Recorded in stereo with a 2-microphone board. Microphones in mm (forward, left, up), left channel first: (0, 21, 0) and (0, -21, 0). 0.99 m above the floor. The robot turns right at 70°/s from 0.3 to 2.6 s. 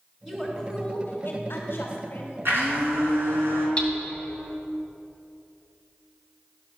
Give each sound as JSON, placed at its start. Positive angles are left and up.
{"t": 0.2, "sound": "a woman speaking", "azimuth_deg": 5, "distance_m": 3.0}
{"t": 2.5, "sound": "a blender", "side_deg": -65, "distance_m": 4.0}
{"t": 3.8, "sound": "hammering", "side_deg": 25, "distance_m": 1.8}